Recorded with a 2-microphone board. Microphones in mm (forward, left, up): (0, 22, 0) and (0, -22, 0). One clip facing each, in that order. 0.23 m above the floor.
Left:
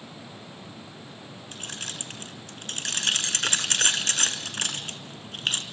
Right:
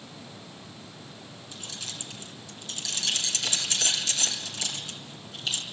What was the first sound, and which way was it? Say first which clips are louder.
Keys jangling: left 3 dB; 50° left (ahead or behind).